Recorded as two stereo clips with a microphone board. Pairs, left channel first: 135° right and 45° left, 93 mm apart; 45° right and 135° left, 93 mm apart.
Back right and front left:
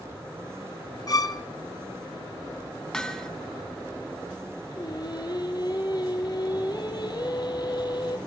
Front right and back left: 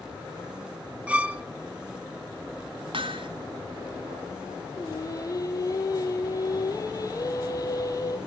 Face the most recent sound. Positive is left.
turn(degrees=-95)